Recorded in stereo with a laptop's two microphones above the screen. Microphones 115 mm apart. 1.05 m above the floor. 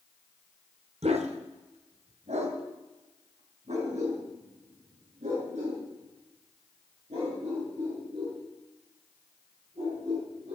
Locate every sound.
1.0 s a dog barking: 65° right (ahead or behind), 1.2 m; by 10.6 s 85° right, 11 m